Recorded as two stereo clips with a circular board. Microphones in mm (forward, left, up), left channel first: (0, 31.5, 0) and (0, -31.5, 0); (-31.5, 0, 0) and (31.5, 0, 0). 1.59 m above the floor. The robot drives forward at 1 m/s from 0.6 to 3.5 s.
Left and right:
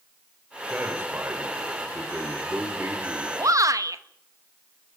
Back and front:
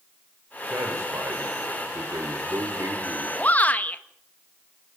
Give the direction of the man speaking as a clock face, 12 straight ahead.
1 o'clock.